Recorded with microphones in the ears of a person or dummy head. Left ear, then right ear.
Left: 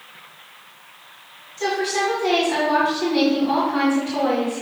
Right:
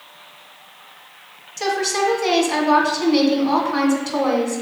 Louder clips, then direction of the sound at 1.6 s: Right 2 dB; 80° right.